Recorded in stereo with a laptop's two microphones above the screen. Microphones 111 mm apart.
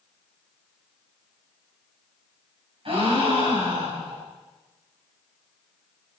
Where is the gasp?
55° right (ahead or behind), 4 m.